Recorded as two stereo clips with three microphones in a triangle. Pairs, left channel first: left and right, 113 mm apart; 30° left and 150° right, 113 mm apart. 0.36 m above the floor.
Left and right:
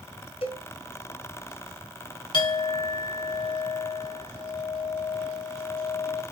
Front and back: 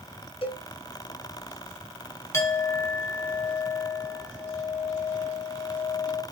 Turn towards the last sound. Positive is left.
turn(degrees=85)